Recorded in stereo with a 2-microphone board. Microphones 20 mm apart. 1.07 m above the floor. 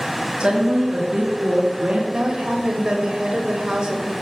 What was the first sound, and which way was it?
A woman speaking, 70° right (ahead or behind).